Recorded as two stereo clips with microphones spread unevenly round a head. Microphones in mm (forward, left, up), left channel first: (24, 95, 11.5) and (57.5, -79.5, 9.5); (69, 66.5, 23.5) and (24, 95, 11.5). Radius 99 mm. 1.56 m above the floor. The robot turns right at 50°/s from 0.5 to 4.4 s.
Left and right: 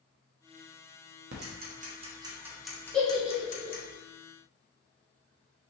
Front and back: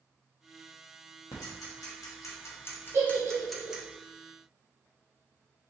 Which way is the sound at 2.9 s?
Straight behind.